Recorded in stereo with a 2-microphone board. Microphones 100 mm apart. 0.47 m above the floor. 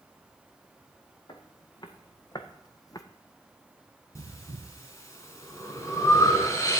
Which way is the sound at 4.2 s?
30° left (ahead or behind).